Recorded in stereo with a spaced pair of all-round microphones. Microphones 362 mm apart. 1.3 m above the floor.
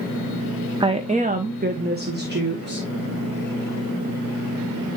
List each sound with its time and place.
0.8 s a woman speaking: 15° right (ahead or behind), 0.5 m; by 2.9 s 30° right (ahead or behind), 1.6 m